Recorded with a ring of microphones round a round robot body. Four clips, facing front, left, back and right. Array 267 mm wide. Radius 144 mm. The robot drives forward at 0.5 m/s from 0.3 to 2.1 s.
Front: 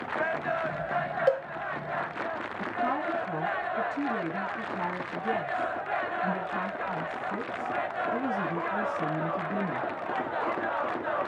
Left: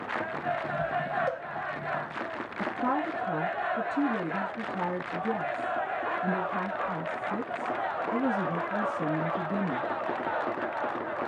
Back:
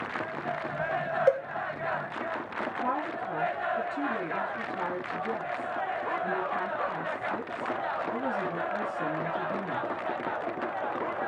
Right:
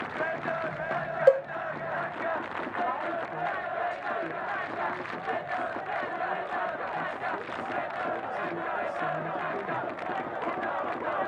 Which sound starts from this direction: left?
A woman speaking, at 2.6 s.